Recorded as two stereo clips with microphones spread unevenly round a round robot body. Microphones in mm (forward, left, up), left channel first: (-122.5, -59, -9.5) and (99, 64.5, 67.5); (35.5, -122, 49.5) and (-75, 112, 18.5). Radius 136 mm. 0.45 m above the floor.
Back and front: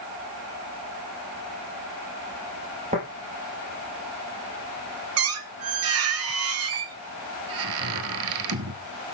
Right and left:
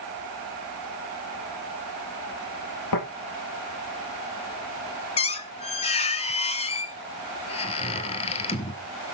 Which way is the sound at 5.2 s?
Straight ahead.